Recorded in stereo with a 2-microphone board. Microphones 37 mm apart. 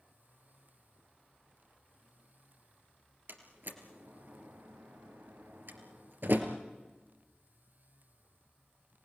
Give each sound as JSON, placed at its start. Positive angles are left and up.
{"t": 3.3, "sound": "a door slam", "side_deg": -65, "distance_m": 3.0}